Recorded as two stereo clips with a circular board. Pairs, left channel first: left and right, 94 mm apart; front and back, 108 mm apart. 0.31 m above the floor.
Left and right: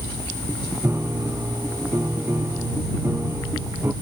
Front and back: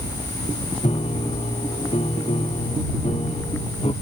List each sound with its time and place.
0.8 s a piano: 25° right